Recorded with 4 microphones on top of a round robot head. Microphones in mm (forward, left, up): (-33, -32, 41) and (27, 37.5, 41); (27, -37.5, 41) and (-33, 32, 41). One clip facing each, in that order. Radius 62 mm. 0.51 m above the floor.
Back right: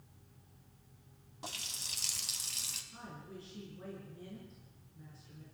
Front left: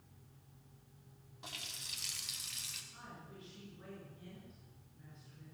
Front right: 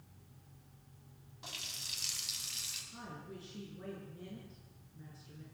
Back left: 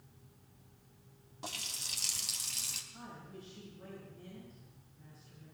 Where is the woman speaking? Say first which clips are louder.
Back right 5 dB, front right 2 dB; 80° right, 8.5 m.